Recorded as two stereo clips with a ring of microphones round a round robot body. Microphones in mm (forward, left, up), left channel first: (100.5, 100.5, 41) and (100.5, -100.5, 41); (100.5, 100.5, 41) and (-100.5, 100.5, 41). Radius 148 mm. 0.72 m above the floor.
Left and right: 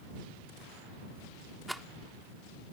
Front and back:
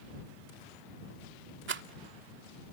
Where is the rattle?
Straight behind.